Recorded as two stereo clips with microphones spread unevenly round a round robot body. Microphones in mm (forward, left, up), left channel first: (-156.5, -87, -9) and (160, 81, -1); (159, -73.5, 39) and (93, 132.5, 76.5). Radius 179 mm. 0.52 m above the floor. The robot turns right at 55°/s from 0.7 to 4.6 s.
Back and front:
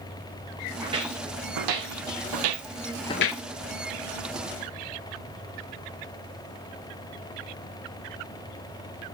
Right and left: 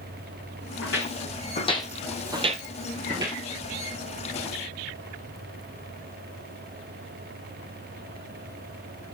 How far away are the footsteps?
About 3 m.